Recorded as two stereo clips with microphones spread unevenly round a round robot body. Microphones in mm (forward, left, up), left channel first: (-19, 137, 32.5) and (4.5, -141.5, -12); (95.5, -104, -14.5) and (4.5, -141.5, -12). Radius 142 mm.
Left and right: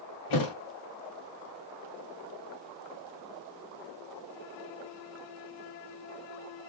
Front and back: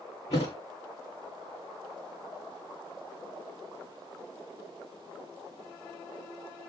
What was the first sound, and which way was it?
A thud, 80° left.